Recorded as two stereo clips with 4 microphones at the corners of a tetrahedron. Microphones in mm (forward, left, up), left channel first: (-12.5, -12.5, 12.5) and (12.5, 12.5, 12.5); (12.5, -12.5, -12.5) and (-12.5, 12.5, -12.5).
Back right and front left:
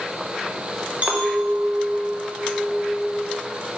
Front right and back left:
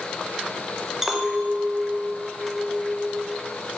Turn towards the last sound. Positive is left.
turn(degrees=60)